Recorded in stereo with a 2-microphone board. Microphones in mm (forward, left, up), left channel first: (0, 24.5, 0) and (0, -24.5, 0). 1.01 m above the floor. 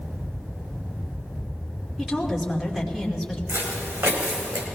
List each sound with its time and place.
2.0 s a woman speaking: 5° right (ahead or behind), 2.5 m
3.5 s footsteps: 70° right (ahead or behind), 4.5 m